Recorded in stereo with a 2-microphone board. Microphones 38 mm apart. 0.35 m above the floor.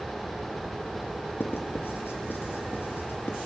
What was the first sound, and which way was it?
Writing, 70° left (ahead or behind).